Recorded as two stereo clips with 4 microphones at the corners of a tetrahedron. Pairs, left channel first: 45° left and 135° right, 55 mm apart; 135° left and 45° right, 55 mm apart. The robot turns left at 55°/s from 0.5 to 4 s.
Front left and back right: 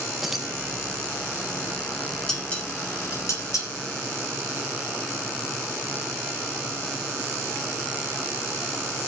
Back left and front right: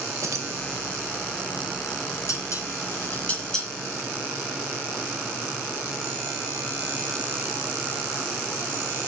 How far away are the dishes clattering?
About 6.5 m.